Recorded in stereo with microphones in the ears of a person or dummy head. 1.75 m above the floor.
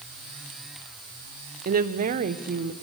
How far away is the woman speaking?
About 1.1 m.